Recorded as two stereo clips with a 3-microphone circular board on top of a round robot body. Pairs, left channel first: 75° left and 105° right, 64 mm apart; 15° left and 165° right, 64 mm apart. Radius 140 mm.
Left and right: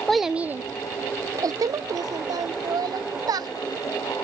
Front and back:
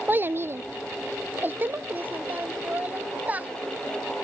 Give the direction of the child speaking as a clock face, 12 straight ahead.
7 o'clock.